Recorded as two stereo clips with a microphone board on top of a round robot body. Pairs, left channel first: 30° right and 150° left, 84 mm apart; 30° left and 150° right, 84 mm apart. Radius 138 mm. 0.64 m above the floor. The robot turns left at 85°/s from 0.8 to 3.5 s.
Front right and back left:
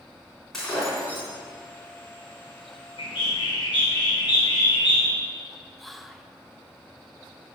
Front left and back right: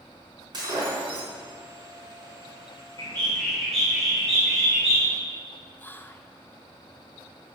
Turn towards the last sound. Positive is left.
turn(degrees=55)